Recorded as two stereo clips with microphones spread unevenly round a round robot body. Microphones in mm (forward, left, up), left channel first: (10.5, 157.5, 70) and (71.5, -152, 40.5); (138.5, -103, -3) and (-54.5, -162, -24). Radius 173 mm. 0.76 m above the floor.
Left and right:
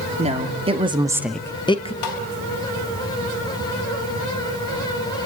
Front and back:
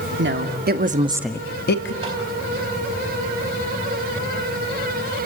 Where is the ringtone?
No ringtone in this recording.